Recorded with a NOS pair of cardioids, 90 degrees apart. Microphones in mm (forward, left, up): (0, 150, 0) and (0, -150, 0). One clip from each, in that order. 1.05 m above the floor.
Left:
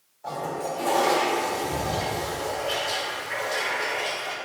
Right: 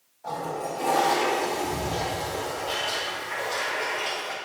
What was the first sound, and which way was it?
A toilet flushing, 10° left.